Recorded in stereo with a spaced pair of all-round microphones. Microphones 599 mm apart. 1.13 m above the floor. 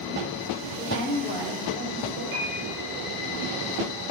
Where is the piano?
75° right (ahead or behind), 5.5 m.